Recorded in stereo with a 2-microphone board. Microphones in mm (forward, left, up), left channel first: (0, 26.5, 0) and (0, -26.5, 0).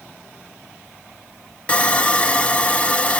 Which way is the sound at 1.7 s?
25° left (ahead or behind).